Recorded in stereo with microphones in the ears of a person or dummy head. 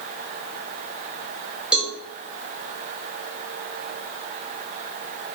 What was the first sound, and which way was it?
A cowbell, 5° right (ahead or behind).